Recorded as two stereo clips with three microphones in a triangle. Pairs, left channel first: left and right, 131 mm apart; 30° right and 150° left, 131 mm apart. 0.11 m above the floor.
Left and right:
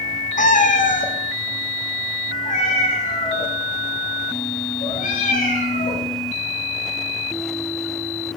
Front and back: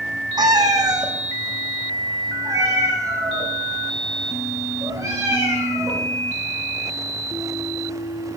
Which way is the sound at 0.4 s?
95° left.